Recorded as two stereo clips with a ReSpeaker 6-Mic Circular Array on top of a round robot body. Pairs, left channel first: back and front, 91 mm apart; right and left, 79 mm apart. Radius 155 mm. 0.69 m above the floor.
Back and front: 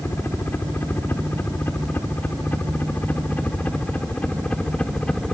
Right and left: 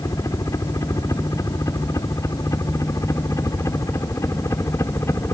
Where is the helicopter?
120° right; by 5.3 s 105° right.